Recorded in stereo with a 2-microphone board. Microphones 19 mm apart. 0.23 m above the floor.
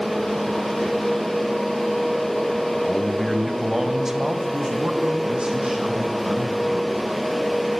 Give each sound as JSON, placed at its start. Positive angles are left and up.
{"t": 2.8, "sound": "a man speaking", "side_deg": 25, "distance_m": 1.5}